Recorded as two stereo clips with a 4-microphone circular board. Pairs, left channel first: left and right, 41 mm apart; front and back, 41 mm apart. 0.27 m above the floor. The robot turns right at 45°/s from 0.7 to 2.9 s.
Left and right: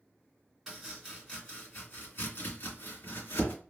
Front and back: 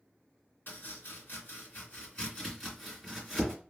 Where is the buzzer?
No buzzer in this recording.